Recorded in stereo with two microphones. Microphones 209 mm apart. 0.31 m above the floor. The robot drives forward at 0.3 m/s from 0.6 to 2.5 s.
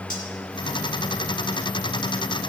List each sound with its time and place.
0.1 s cutlery clinking: 40° left (ahead or behind), 2 m